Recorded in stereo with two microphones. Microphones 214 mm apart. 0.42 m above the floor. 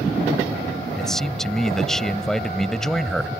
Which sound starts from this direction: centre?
A man speaking, at 1.0 s.